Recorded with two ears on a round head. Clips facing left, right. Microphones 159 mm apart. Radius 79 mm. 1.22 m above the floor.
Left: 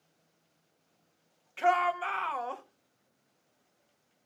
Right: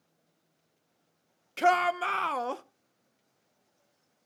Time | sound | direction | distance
1.6 | a shout | 50° right (ahead or behind) | 1.0 m